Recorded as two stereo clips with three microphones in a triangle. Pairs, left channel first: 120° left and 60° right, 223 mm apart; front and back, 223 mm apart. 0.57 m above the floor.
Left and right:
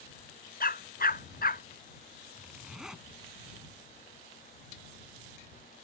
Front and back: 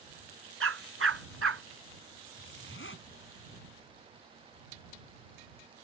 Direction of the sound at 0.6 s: 170° left.